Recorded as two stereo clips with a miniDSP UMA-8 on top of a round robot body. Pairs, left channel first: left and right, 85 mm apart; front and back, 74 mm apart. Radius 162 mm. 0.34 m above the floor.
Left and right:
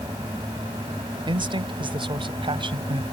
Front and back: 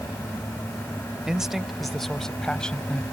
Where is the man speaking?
100° right; by 3.0 s 75° right.